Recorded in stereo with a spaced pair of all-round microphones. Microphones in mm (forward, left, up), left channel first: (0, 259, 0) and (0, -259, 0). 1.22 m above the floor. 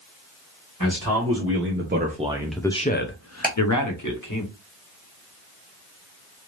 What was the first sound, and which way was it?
A man speaking, 30° right (ahead or behind).